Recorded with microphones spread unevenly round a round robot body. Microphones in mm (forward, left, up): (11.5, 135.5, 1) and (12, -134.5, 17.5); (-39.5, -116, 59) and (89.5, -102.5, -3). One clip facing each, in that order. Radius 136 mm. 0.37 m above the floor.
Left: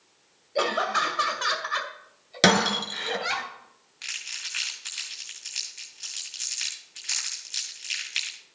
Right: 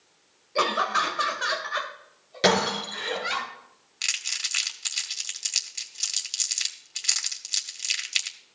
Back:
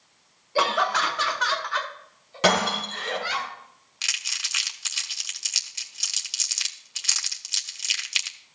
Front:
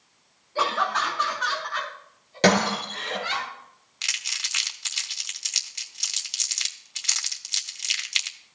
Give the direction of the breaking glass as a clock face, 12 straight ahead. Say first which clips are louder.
Left 1 dB, front 2 dB; 10 o'clock.